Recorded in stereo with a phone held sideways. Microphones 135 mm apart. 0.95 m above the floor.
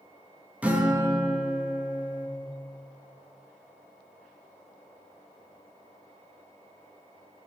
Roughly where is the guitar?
Centre.